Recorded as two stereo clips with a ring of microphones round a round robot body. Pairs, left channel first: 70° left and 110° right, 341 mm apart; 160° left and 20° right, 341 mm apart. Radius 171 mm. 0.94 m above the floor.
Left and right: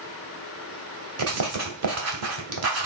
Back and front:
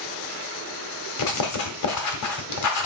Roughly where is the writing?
Behind.